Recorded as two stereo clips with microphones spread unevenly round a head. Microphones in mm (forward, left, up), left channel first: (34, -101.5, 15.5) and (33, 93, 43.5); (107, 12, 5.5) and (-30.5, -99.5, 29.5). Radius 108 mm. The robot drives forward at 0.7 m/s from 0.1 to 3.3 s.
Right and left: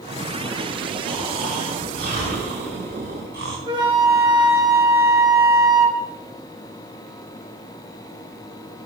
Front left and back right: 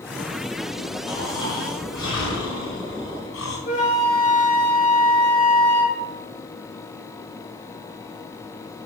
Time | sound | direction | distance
1.1 | snoring | 45° left | 6 m
3.7 | a flute | 65° left | 1.5 m